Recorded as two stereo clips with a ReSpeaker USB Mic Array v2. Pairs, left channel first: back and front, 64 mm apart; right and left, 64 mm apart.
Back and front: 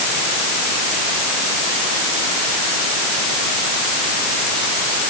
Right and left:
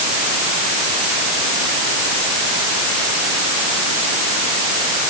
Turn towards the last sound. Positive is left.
No sound to turn to.